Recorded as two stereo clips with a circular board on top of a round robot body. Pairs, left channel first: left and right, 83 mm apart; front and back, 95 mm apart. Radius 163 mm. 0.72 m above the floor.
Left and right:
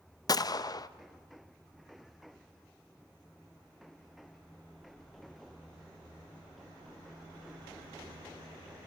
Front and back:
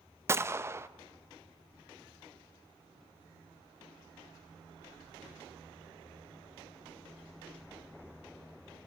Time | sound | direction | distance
0.3 | a gunshot | 120° left | 0.6 m